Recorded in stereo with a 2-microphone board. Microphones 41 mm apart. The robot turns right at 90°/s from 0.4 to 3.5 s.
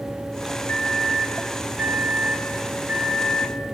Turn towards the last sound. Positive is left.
turn(degrees=-5)